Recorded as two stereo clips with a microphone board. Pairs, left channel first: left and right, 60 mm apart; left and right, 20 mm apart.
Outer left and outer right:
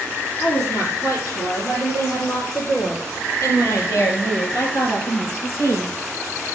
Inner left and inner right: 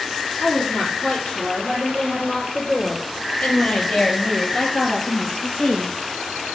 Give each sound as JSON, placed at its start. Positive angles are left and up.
{"t": 0.4, "sound": "a woman speaking", "side_deg": 50, "distance_m": 5.0}